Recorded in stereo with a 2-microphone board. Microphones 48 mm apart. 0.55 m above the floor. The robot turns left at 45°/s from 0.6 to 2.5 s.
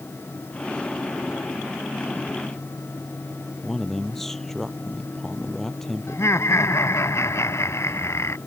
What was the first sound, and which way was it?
A man speaking, 5° left (ahead or behind).